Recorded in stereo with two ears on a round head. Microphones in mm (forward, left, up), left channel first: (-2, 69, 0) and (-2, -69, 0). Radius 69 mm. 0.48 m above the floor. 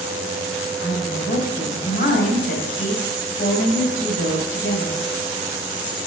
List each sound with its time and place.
0.8 s a woman speaking: 55° left (ahead or behind), 2.5 m